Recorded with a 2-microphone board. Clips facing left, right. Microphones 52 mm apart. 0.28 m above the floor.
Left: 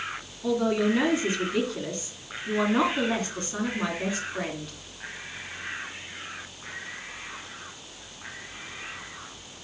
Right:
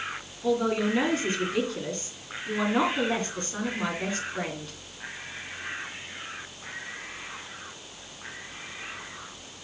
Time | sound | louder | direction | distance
0.4 | a man speaking | left 1 dB | 5° left (ahead or behind) | 3 m